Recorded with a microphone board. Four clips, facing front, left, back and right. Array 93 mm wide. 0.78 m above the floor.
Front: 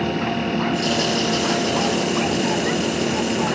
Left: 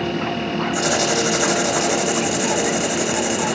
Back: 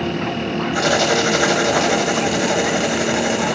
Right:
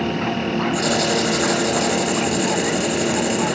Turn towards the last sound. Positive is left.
turn(degrees=170)